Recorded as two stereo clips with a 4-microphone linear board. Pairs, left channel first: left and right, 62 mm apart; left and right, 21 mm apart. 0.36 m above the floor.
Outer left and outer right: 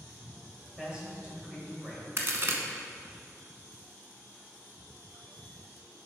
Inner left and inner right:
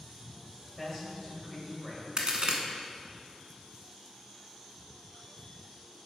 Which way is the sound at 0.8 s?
10° right (ahead or behind).